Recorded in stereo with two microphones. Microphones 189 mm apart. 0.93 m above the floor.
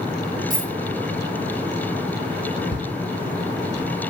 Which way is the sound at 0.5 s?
45° right (ahead or behind).